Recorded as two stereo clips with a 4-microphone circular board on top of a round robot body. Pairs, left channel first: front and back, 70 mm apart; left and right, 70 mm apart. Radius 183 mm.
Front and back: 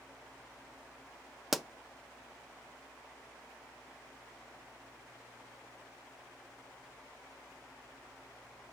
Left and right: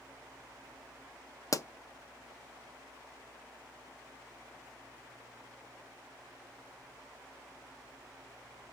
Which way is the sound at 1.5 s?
90° left.